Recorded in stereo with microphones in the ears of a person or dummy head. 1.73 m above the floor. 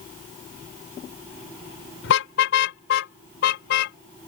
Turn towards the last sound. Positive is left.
turn(degrees=50)  # may be behind; listen again after turning